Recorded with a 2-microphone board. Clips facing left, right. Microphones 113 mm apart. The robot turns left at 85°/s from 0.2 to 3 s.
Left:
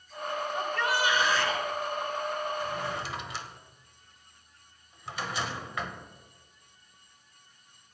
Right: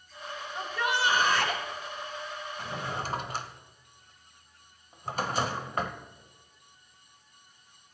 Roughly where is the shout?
Ahead.